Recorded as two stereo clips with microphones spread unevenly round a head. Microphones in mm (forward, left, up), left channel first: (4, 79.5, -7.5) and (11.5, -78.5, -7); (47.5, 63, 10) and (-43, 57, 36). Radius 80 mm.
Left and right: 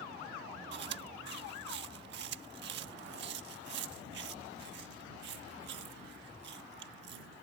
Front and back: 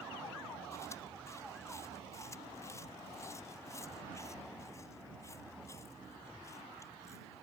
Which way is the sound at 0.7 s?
70° right.